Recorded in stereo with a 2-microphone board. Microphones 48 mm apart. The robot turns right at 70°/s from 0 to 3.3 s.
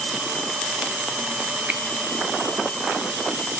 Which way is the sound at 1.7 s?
35° right (ahead or behind).